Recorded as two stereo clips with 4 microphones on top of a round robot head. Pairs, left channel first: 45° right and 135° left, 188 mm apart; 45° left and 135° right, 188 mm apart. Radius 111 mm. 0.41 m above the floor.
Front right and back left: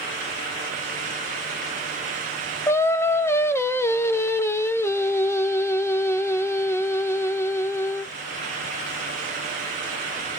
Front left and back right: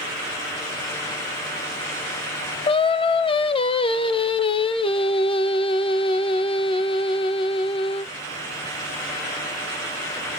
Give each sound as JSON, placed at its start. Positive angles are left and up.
{"t": 2.7, "sound": "singing", "azimuth_deg": 20, "distance_m": 0.5}